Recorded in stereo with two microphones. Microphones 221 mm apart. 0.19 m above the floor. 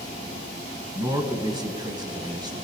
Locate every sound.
0.9 s a man speaking: 20° right (ahead or behind), 1.3 m